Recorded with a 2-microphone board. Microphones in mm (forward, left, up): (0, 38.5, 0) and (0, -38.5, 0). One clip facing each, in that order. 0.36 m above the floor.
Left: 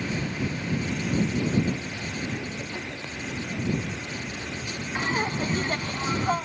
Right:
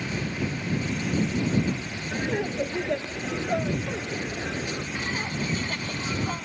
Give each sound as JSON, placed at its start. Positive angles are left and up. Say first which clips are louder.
{"t": 2.1, "sound": "laughter", "louder": "right 8 dB", "side_deg": -70}
{"t": 5.0, "sound": "laughter", "louder": "left 7 dB", "side_deg": 35}